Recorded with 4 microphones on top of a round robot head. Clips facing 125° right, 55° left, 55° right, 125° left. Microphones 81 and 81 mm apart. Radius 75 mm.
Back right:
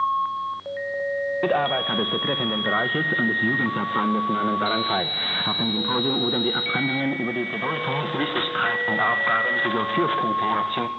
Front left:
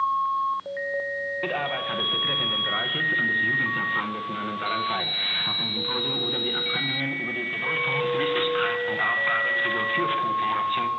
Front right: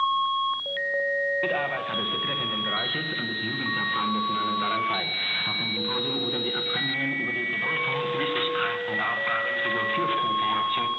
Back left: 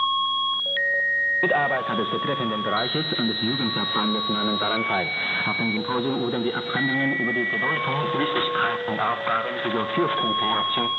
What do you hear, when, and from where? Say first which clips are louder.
1.4 s a man speaking: back right 7 dB, back left 5 dB; straight behind, 0.8 m